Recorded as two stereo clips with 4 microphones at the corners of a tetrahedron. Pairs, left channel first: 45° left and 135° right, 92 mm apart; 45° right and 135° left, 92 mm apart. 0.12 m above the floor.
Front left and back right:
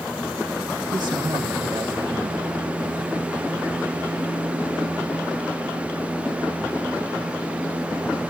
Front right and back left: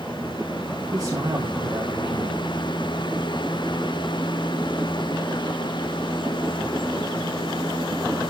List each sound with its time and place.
0.9 s a man speaking: 175° right, 5 m